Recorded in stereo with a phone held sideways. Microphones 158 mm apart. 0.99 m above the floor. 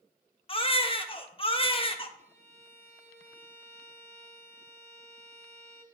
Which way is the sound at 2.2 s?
45° right (ahead or behind).